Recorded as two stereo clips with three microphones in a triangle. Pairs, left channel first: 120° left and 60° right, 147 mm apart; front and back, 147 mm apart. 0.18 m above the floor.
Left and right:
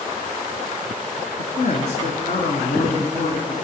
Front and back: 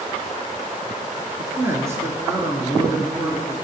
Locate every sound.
1.4 s a man speaking: 110° left, 2.0 m